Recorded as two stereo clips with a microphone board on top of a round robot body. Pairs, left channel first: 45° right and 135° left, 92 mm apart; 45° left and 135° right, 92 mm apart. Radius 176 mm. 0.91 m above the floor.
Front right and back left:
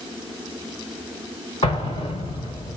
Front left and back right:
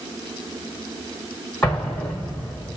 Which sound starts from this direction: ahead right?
An explosion, at 1.6 s.